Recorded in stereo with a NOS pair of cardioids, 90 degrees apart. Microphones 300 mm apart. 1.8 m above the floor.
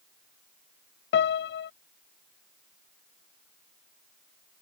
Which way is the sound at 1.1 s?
40° left.